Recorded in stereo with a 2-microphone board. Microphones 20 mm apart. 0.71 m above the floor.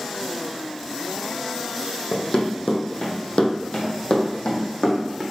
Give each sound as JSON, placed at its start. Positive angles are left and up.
{"t": 2.1, "sound": "running footsteps", "side_deg": 50, "distance_m": 1.9}